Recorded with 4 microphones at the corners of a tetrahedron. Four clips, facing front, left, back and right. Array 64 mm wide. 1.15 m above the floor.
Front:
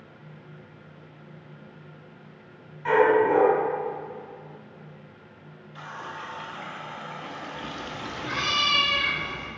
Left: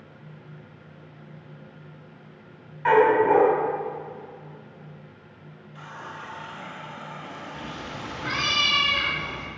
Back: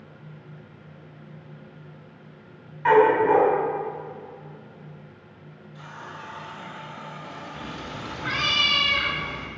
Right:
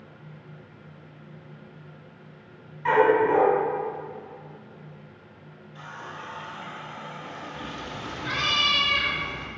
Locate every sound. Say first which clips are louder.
2.9 s a dog barking: left 2 dB, back 2 dB; 130° left, 2.5 m
5.8 s a running tap: even, front 3 dB; 10° left, 1.1 m
7.5 s a cat meowing: even, even; 155° left, 1.7 m